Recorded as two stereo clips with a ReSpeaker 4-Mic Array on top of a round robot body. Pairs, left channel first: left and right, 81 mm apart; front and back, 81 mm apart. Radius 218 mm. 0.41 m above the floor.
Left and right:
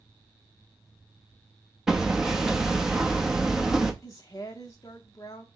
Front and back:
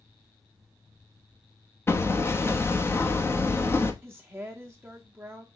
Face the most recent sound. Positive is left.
turn(degrees=125)